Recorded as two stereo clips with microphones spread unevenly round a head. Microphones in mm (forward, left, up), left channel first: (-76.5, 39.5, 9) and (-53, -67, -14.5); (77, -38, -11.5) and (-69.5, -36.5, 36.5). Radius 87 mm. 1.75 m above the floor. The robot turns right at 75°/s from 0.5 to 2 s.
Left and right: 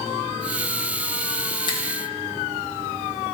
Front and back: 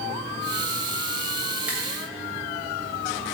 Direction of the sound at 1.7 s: 110° left.